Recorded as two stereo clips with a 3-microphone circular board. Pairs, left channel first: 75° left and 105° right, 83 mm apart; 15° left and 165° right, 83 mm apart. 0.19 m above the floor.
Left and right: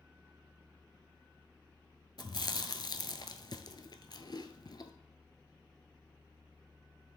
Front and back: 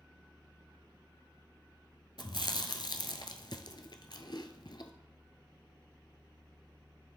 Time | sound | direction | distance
2.2 | chewing | 45° left | 0.7 m